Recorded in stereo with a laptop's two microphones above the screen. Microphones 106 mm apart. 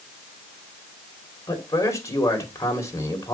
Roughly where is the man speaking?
Left.